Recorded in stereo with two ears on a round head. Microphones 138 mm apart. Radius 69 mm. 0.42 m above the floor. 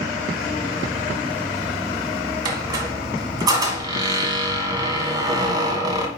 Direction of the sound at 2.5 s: 25° right (ahead or behind).